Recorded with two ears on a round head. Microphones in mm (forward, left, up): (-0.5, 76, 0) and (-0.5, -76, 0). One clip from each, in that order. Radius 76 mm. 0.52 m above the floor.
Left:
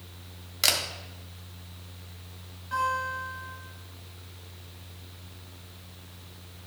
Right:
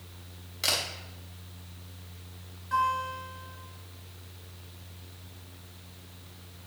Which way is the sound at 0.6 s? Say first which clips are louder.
Left 3 dB; 30° left (ahead or behind).